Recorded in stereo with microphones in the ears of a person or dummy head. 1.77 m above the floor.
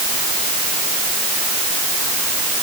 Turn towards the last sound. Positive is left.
No sound to turn to.